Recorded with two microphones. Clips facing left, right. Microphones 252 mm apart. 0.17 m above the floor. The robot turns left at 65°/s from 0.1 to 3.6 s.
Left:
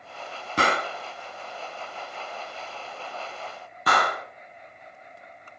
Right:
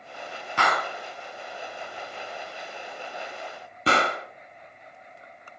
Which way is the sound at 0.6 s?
35° left (ahead or behind).